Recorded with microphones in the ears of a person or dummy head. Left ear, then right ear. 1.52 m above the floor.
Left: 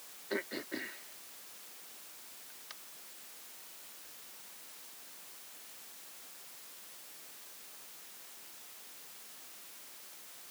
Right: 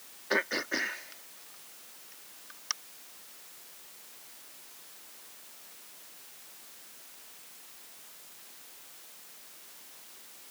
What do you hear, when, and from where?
0.3 s throat clearing: 45° right (ahead or behind)